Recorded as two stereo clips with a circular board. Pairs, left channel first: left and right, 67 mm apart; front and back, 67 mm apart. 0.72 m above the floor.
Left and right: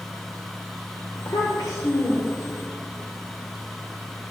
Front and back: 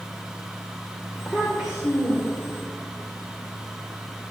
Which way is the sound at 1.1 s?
90° left.